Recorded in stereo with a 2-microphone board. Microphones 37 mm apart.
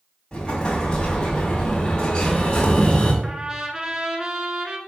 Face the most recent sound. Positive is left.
turn(degrees=-20)  # may be behind; listen again after turning